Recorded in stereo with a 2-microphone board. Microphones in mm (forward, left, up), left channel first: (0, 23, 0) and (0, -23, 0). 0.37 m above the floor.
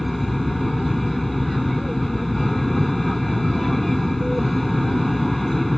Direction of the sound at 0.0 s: 5° left (ahead or behind).